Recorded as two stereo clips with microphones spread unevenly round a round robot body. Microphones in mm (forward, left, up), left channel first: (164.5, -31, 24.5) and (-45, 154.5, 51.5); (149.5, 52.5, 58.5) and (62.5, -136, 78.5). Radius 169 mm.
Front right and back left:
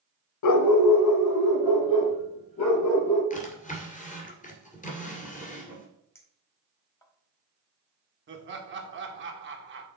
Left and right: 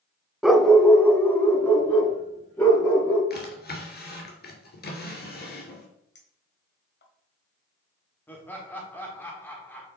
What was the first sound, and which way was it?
A dog barking, 25° right.